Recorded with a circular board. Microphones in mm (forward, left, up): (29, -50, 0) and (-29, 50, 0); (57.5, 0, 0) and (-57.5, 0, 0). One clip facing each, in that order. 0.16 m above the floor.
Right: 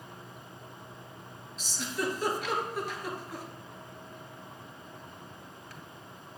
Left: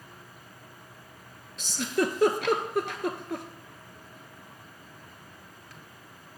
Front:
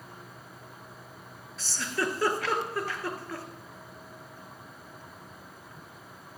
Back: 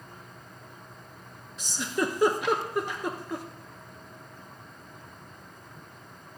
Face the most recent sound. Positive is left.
turn(degrees=110)